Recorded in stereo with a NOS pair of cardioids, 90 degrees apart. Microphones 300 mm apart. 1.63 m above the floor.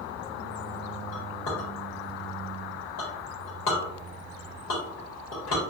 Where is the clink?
70° left, 1.8 m.